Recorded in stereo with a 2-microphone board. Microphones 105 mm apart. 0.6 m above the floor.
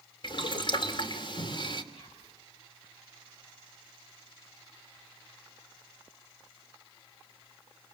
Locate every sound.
0.2 s boiling: 50° left (ahead or behind), 2.5 m
1.9 s whispering: 65° left (ahead or behind), 7 m